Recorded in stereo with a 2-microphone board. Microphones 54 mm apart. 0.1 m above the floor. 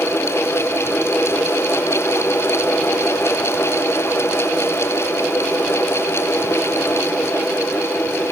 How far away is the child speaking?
I don't hear a child speaking.